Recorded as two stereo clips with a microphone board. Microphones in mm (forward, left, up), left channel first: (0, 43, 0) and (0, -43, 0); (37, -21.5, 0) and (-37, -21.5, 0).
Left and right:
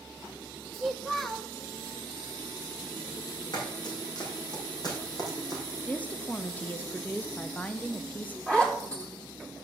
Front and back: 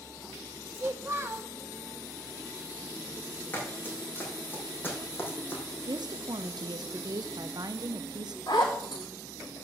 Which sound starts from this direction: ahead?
A zipper, at 8.5 s.